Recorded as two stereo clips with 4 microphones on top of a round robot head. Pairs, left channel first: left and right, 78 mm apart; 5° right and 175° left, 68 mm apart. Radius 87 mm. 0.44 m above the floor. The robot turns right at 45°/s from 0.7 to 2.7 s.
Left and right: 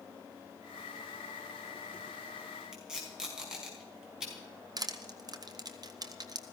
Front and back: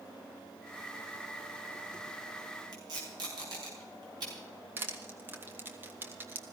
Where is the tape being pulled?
170° right, 5 m.